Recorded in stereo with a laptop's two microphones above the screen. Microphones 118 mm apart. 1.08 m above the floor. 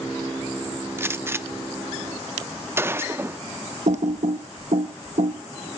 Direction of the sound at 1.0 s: 20° right (ahead or behind).